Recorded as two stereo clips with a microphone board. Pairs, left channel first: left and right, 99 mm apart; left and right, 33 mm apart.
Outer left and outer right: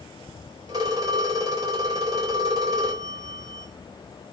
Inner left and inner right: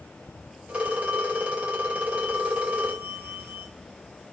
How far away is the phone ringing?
About 4.5 m.